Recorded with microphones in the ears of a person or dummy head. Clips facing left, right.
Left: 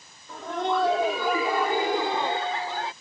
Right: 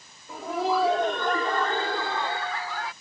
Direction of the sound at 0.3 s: 10° right (ahead or behind).